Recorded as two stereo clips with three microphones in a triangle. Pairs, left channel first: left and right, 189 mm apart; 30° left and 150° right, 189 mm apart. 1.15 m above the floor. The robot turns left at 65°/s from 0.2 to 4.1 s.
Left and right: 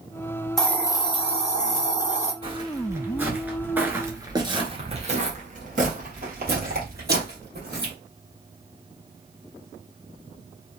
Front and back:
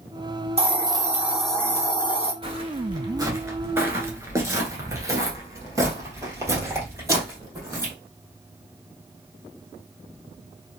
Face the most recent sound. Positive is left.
turn(degrees=-75)